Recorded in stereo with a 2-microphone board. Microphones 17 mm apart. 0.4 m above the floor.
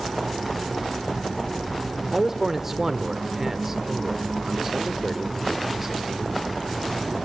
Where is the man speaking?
20° right (ahead or behind), 1.2 m.